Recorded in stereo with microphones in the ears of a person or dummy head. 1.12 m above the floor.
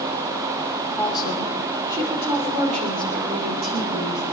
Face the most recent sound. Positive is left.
turn(degrees=-50)  # may be behind; listen again after turning